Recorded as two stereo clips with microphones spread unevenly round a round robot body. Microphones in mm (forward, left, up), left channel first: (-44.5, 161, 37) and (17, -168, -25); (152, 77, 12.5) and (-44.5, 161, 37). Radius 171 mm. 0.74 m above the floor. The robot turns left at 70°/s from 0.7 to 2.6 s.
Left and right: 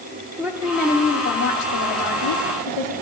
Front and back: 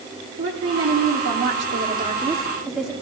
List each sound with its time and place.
0.4 s a woman speaking: 160° right, 2.5 m; by 2.9 s 65° left, 2.5 m